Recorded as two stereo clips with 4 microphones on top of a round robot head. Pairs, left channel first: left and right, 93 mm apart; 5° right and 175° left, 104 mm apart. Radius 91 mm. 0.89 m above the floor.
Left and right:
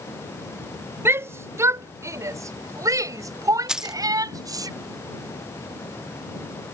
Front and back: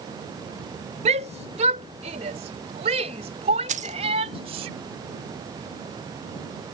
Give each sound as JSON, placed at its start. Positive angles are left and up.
{"t": 1.1, "sound": "a shout", "azimuth_deg": -155}
{"t": 3.7, "sound": "keys jangling", "azimuth_deg": -170}